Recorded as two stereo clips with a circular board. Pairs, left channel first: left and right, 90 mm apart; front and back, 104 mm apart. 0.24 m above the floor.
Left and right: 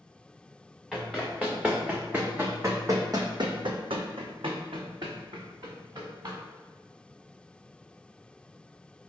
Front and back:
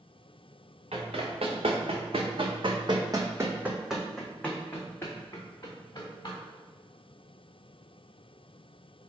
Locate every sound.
0.9 s running footsteps: 175° right, 1.6 m; by 6.4 s 50° right, 1.7 m